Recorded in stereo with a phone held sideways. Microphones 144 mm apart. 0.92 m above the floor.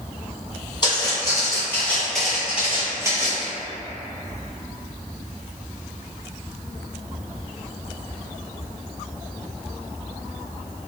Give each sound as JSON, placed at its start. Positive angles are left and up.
{"t": 0.8, "sound": "footsteps", "side_deg": 30, "distance_m": 1.4}